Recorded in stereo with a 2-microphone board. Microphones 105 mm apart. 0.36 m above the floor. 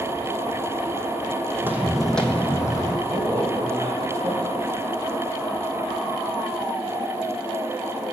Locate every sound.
1.6 s footsteps: 20° right (ahead or behind), 1.0 m; by 3.0 s 40° left (ahead or behind), 1.1 m
3.1 s a man speaking: 45° right (ahead or behind), 2.0 m